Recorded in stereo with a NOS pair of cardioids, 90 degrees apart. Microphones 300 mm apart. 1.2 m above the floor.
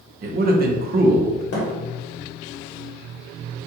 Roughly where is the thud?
Ahead left.